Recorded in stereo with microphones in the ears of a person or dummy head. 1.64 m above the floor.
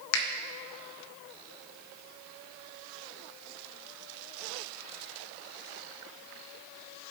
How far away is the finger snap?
About 0.8 m.